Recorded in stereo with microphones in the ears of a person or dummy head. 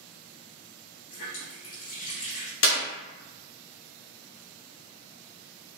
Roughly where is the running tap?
Left.